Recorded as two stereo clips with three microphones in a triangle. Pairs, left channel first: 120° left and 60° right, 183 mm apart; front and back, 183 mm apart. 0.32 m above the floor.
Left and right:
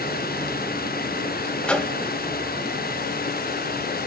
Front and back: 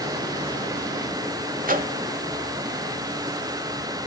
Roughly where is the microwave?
Behind right.